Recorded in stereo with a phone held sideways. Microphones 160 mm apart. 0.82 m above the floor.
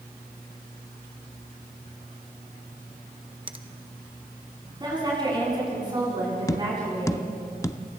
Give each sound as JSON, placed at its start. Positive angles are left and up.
{"t": 3.5, "sound": "a finger snap", "side_deg": -35, "distance_m": 0.9}
{"t": 4.8, "sound": "a woman speaking", "side_deg": -30, "distance_m": 9.0}
{"t": 6.5, "sound": "tapping", "side_deg": 20, "distance_m": 0.6}